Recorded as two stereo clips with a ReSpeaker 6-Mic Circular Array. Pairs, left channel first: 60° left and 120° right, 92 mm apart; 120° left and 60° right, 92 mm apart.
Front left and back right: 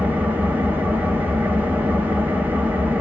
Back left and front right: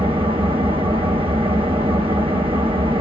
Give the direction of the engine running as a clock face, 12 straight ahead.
2 o'clock.